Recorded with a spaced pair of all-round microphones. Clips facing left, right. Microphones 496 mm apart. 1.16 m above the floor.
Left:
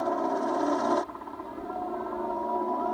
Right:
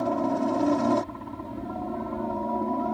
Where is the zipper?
I don't hear a zipper.